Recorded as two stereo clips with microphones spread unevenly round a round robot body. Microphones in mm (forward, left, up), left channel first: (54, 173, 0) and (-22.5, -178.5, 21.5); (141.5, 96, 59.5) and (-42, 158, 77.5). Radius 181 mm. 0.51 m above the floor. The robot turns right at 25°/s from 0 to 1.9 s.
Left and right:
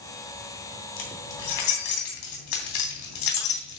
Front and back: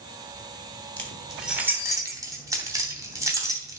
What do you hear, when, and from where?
1.0 s keys jangling: 65° left, 3 m; by 3.8 s 85° left, 3 m